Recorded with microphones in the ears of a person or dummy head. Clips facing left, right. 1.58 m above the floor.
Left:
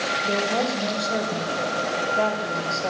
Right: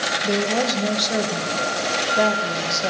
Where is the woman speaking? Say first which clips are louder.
Right 3 dB; 25° right (ahead or behind), 1.8 m.